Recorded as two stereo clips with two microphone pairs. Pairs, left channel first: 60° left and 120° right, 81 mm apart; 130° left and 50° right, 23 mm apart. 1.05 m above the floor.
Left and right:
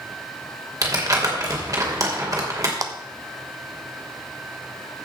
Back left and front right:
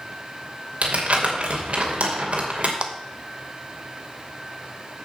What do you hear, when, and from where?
0.8 s crumpling: 75° right, 2.5 m
2.8 s a clap: 80° right, 1.0 m